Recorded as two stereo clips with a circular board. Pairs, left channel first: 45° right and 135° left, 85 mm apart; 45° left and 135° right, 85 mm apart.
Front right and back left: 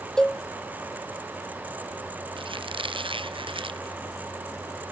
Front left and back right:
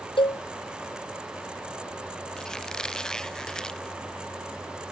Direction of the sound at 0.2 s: 35° left.